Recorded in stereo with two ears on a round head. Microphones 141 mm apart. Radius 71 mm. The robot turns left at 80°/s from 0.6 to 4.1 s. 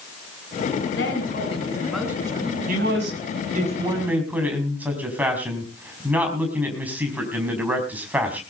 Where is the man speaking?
55° right, 5 m; by 8.4 s 170° right, 5 m.